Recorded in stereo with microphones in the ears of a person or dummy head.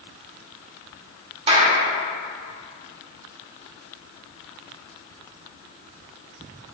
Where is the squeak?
I don't hear a squeak.